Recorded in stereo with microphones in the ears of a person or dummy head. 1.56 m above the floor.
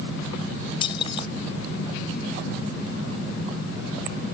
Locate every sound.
0.8 s keys jangling: 35° left (ahead or behind)